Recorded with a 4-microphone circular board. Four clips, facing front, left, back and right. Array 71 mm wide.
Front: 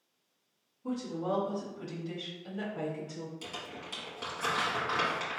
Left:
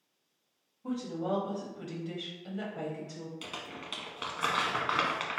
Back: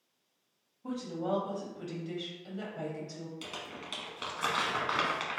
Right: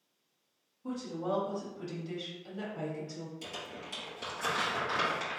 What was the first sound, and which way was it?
A woman speaking, 140° left.